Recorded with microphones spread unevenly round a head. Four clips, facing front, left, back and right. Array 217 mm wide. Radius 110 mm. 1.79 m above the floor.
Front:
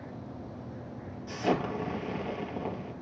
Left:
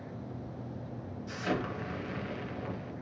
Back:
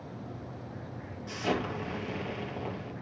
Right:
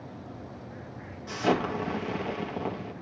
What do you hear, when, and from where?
1.3 s an explosion: 70° right, 2.5 m